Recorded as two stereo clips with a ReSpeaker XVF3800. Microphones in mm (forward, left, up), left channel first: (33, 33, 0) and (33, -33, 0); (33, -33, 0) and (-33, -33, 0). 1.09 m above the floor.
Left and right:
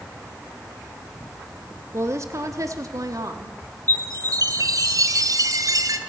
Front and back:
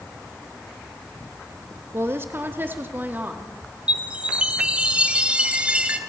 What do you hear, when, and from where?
1.9 s a woman speaking: 130° right, 1.8 m; by 3.6 s 115° right, 2.5 m
3.9 s a chime: 105° right, 2 m